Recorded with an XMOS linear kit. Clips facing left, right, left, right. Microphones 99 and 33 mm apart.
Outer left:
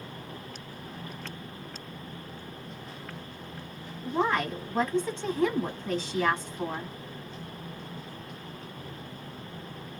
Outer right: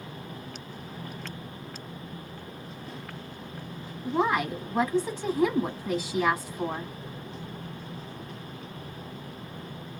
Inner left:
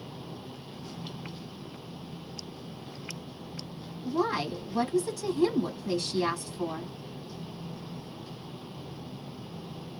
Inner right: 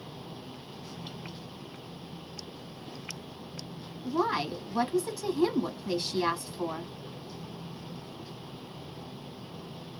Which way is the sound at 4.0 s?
10° right (ahead or behind).